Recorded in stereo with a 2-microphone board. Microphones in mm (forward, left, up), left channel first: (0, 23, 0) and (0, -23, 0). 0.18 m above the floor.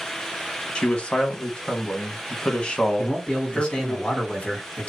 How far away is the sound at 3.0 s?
About 1.9 m.